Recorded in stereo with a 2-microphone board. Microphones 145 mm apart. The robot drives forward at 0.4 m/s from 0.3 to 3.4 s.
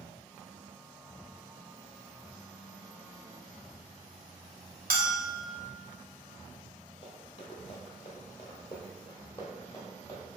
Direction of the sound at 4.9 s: 85° right.